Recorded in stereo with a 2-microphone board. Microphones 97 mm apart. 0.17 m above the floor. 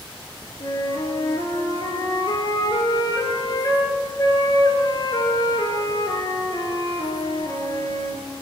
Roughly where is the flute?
Left.